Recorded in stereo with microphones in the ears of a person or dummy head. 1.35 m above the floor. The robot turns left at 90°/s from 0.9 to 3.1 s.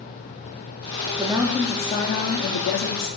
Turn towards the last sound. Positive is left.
turn(degrees=35)